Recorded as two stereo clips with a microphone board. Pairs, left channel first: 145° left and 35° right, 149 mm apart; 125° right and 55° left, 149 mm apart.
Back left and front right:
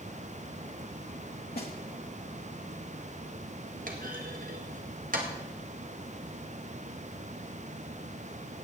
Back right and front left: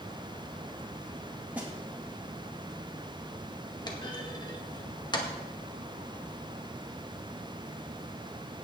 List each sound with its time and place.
1.6 s a snare drum: 135° left, 2.5 m
3.9 s a clunk: 60° right, 1.8 m